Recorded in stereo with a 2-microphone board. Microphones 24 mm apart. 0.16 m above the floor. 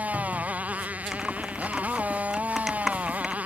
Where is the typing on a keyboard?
10° right (ahead or behind).